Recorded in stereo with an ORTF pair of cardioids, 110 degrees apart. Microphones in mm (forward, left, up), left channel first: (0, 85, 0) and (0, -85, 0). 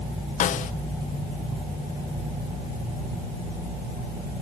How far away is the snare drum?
About 0.6 m.